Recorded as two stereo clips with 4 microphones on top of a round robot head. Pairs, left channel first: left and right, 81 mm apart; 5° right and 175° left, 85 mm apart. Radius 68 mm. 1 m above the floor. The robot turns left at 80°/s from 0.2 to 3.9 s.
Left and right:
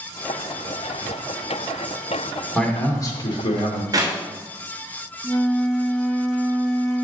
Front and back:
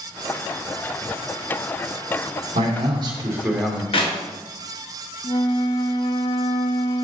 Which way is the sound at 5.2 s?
10° left.